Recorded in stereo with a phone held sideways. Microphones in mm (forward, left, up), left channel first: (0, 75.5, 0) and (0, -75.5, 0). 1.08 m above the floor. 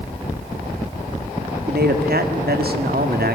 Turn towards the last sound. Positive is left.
turn(degrees=-75)  # may be behind; listen again after turning